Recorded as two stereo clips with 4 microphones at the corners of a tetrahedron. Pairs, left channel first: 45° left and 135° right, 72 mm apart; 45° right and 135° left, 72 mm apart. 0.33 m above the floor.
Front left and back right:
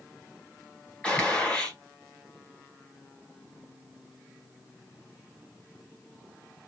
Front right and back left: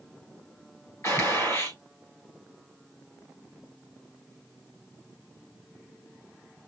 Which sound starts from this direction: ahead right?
A gunshot, at 1.0 s.